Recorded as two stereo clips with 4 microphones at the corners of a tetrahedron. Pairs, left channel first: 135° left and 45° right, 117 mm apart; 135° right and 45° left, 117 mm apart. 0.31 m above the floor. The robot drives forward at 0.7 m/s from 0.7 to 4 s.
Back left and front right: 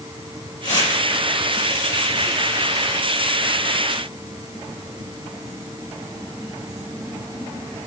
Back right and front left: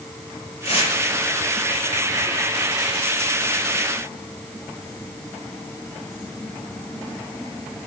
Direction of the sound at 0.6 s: 170° right.